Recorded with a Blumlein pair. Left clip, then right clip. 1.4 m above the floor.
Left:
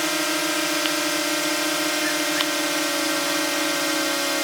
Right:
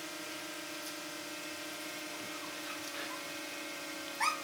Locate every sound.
0.0 s a drone: 40° left